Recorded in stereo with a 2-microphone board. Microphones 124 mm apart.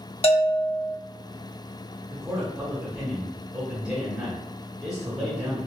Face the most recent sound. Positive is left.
turn(degrees=-5)  # may be behind; listen again after turning